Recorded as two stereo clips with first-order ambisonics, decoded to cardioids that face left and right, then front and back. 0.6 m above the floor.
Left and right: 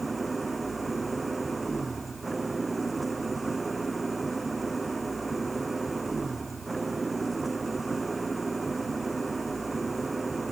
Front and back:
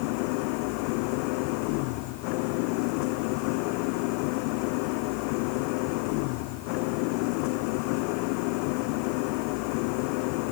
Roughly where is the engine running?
Ahead.